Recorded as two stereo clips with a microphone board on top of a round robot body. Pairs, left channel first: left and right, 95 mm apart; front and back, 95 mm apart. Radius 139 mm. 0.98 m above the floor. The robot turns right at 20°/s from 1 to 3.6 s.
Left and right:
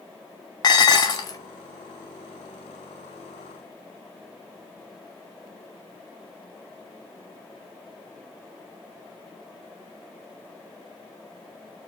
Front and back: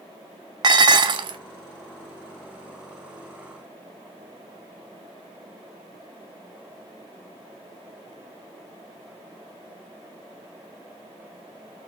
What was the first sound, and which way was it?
Dishes clattering, 140° left.